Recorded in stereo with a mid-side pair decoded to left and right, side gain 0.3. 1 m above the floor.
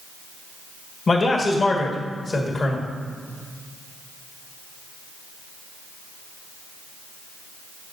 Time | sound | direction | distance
1.1 | a man speaking | 55° left | 1.5 m